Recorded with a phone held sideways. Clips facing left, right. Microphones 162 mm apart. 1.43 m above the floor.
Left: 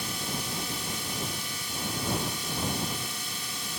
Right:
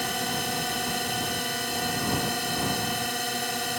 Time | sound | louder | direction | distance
0.0 | a drone | right 6 dB | 70° right (ahead or behind) | ?